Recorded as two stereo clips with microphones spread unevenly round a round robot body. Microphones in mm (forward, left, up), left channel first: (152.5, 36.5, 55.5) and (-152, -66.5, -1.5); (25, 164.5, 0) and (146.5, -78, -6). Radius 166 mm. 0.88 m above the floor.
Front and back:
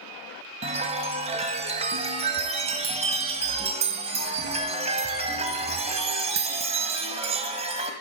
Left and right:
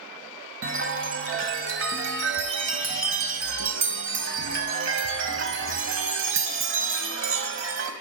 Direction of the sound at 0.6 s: 85° right.